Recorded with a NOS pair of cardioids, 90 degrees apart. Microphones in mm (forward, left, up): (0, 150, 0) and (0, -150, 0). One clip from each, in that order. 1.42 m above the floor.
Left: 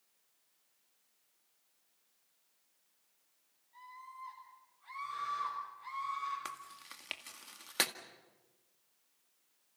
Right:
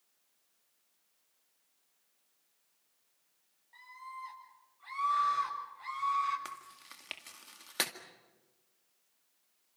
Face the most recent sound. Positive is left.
turn(degrees=5)